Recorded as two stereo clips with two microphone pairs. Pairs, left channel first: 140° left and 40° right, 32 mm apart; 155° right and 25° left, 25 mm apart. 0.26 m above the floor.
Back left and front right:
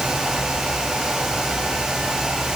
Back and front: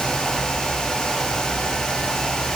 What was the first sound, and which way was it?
Only background noise.